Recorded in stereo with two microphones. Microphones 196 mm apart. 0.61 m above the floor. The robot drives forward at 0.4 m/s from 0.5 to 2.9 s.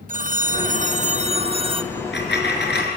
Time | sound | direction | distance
0.1 | a phone ringing | 45° right (ahead or behind) | 0.5 m
1.9 | a dropped coin | 70° left (ahead or behind) | 3.5 m